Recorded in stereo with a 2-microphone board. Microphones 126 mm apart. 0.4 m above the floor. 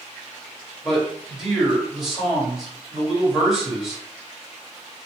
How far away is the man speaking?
About 1.9 m.